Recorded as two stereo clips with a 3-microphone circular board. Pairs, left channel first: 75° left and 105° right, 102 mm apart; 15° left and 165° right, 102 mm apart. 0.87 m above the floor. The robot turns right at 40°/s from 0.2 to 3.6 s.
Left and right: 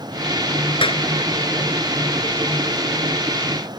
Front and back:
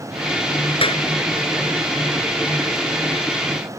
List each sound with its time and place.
0.8 s a clap: 45° left; by 1.0 s 50° left